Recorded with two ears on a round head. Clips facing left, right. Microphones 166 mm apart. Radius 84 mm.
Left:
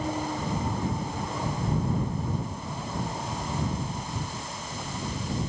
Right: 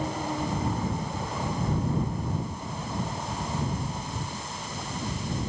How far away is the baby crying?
No baby crying in this recording.